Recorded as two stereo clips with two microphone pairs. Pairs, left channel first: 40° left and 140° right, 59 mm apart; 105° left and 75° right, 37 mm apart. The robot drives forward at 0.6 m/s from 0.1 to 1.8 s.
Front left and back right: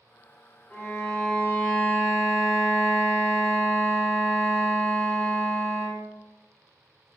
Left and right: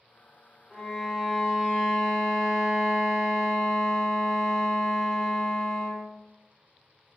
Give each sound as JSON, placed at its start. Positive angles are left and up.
{"t": 0.7, "sound": "a violin", "azimuth_deg": 15, "distance_m": 1.7}